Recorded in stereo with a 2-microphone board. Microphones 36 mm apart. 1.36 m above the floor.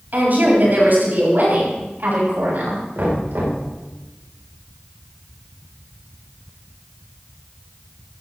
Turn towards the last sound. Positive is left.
turn(degrees=-70)  # may be behind; listen again after turning